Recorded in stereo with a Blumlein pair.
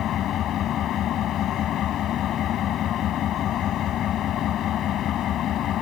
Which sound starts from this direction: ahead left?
An engine running, at 0.0 s.